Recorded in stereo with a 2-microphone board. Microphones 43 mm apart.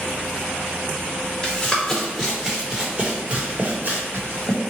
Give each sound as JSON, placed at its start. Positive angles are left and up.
{"t": 1.4, "sound": "running footsteps", "side_deg": 15, "distance_m": 1.6}